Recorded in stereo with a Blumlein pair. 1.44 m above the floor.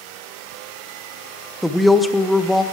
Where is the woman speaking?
5° left, 0.9 m.